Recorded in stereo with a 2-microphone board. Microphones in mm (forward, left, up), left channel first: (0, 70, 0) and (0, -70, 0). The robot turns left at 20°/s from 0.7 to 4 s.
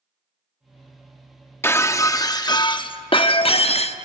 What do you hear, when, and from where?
1.6 s breaking glass: 160° left, 0.8 m; by 4.0 s 110° left, 0.8 m